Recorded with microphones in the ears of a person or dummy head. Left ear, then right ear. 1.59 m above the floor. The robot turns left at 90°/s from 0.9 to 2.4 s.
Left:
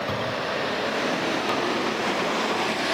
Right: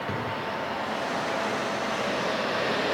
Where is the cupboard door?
25° left (ahead or behind), 8 m.